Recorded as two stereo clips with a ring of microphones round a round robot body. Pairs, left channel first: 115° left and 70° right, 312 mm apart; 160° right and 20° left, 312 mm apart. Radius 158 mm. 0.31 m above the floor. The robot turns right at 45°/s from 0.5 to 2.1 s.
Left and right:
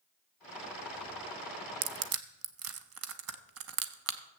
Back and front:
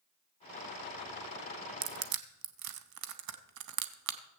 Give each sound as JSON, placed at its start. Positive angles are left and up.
{"t": 1.8, "sound": "crushing", "azimuth_deg": -30, "distance_m": 0.8}